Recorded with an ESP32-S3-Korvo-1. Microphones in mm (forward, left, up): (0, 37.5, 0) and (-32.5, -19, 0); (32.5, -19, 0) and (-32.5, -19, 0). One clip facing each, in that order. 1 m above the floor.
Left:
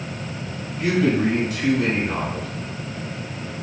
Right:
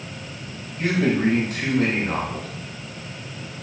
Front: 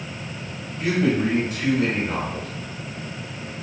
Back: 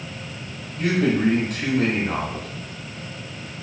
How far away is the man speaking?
About 1.4 m.